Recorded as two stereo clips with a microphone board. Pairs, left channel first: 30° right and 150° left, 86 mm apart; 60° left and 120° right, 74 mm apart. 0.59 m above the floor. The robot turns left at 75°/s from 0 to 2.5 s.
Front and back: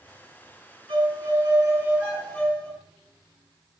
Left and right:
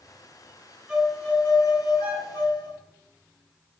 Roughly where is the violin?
Behind.